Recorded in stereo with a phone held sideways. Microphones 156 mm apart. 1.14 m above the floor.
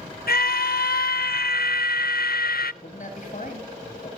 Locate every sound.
0.3 s a scream: 75° left (ahead or behind), 0.8 m
2.8 s a man speaking: 50° left (ahead or behind), 8 m